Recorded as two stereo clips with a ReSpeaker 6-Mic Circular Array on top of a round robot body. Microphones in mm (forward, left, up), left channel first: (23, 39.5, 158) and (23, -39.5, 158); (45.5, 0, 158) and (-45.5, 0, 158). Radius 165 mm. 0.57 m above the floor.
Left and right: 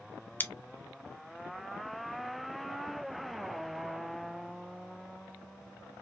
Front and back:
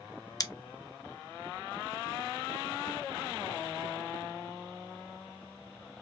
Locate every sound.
0.4 s scissors: 30° left, 0.9 m